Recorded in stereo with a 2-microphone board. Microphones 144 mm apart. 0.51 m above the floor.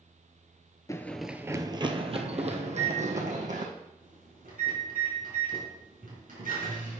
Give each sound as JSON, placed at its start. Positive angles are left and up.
{"t": 0.9, "sound": "running footsteps", "side_deg": 25, "distance_m": 0.5}
{"t": 2.6, "sound": "a microwave", "side_deg": -80, "distance_m": 4.0}